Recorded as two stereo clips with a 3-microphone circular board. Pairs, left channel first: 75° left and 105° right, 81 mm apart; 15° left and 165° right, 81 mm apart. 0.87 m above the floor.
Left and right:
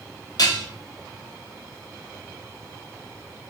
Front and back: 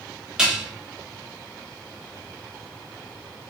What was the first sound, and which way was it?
Dishes clattering, 115° left.